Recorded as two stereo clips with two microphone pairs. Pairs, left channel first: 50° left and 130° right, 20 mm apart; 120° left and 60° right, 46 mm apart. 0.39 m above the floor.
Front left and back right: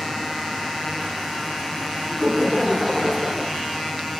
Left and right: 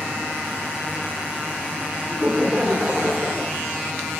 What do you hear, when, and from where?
2.1 s laughter: 35° right, 1.1 m